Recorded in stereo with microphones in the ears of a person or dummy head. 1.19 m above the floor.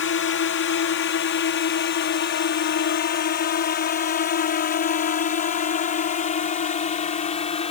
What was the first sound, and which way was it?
A drone, 60° left (ahead or behind).